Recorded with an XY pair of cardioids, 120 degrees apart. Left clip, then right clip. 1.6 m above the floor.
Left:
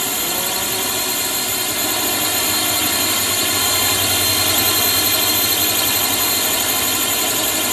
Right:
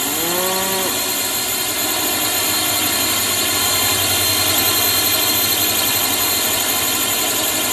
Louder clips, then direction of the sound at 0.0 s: Right 2 dB; straight ahead.